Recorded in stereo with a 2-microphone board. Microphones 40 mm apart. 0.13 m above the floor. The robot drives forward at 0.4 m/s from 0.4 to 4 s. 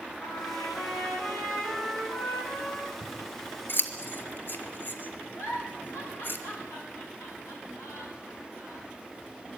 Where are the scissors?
60° left (ahead or behind), 2 m; by 6.4 s 55° left (ahead or behind), 2 m.